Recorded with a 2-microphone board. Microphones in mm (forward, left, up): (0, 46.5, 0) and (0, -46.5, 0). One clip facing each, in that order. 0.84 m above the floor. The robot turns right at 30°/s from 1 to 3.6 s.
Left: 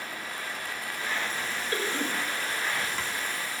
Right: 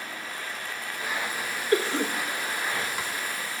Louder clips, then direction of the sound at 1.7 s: Right 7 dB; 70° right (ahead or behind).